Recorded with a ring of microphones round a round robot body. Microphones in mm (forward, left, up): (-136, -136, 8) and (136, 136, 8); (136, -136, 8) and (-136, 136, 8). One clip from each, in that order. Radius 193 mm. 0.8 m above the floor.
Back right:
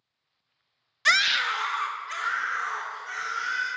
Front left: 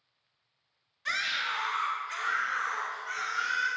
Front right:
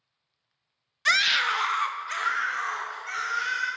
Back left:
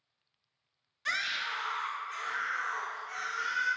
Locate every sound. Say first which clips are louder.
1.1 s a scream: back right 9 dB, front right 11 dB; 105° right, 0.5 m; by 3.7 s 50° right, 3 m